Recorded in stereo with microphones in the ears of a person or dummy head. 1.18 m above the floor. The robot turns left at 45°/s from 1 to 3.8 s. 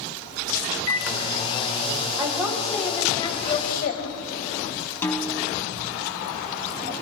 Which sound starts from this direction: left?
A microwave, at 0.9 s.